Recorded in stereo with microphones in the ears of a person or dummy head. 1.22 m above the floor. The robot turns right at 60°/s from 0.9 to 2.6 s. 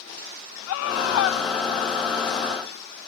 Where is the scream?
80° left; by 1.4 s 110° left.